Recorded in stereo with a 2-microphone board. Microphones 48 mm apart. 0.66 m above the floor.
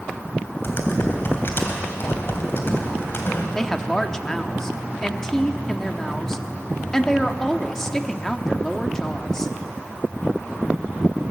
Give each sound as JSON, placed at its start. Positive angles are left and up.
{"t": 0.6, "sound": "typing on a keyboard", "side_deg": 50, "distance_m": 3.0}
{"t": 3.5, "sound": "a woman speaking", "side_deg": 10, "distance_m": 1.1}